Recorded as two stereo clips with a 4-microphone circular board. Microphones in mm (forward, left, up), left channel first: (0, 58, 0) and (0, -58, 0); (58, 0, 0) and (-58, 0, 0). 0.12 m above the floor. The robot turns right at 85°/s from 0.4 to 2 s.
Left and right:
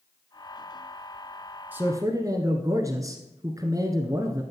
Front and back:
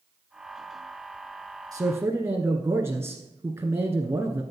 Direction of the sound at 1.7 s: 155° right.